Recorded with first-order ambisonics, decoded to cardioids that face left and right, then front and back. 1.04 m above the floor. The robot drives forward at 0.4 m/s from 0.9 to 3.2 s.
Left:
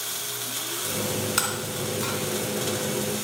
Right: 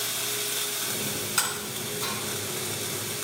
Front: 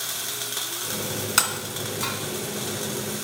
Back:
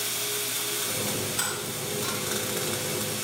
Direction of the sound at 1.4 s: 10° left.